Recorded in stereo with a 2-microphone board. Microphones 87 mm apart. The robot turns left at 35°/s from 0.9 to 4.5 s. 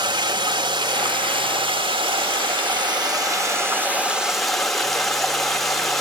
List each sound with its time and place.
0.0 s running water: 55° right, 1.2 m; by 6.0 s straight behind, 1.2 m